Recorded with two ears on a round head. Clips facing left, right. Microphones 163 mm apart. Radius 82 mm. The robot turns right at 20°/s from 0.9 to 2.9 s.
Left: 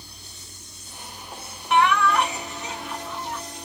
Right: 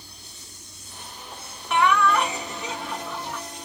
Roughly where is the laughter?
Right.